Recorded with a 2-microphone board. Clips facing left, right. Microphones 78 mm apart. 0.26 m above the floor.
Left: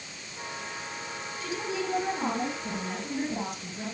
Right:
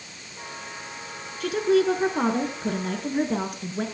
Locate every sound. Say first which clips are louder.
1.4 s a woman speaking: right 12 dB; 65° right (ahead or behind), 3.5 m